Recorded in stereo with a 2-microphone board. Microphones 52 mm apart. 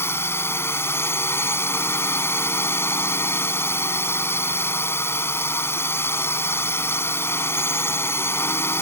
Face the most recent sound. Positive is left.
turn(degrees=55)  # may be behind; listen again after turning